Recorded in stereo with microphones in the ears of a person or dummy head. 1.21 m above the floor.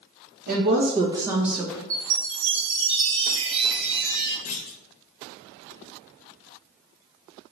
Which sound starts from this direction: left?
A clunk, at 4.5 s.